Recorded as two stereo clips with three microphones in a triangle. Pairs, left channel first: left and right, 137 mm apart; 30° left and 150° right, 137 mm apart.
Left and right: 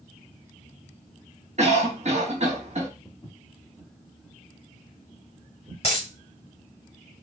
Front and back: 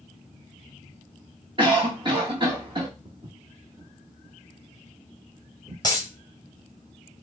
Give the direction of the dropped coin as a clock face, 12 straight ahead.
9 o'clock.